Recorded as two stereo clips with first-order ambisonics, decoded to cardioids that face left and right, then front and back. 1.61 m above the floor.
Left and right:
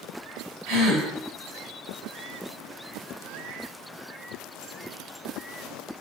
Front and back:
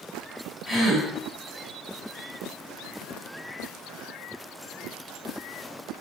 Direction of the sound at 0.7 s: 100° right.